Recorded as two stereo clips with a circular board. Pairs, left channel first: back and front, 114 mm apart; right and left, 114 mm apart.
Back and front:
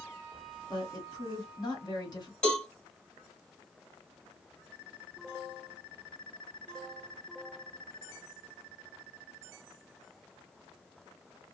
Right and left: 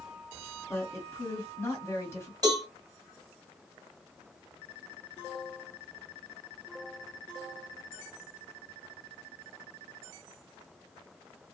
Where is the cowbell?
105° left, 1.9 m.